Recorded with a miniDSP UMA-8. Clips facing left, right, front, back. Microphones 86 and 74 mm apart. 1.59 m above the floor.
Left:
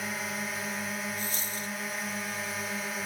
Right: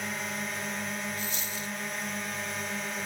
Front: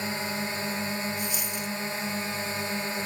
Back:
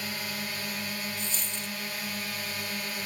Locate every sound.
0.0 s a drone: 5° left
1.2 s a dropped coin: 70° left